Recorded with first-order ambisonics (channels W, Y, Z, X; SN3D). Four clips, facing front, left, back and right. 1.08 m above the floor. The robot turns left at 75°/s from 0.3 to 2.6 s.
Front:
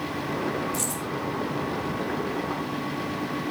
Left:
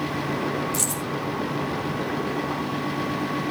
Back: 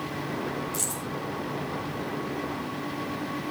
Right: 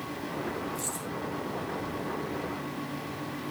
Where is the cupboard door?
No cupboard door in this recording.